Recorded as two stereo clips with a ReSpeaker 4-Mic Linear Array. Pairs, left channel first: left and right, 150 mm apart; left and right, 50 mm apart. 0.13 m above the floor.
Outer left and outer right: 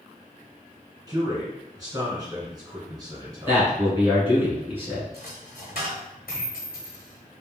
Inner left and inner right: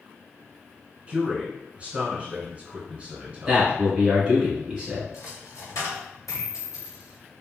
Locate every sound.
1.1 s a man speaking: 25° right (ahead or behind), 1.1 m
3.5 s a man speaking: 15° right (ahead or behind), 1.5 m
5.1 s a dropped coin: 80° left, 1.4 m